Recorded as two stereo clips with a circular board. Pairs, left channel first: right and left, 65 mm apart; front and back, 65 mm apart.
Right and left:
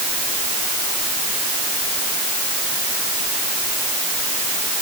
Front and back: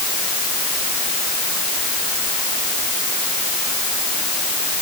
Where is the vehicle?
I don't hear a vehicle.